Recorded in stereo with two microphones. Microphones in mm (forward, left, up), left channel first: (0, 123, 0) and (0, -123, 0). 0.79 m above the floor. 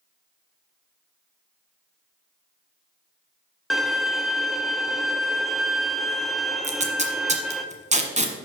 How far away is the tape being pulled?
About 1.1 m.